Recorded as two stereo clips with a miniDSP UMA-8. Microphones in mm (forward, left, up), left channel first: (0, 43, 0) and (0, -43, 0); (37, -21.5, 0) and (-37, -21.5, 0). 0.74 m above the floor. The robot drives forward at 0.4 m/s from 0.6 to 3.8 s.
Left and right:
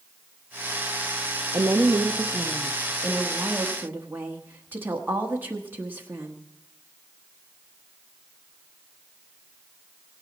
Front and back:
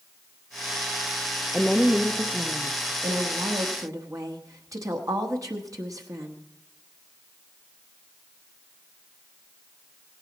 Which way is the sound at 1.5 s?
75° right.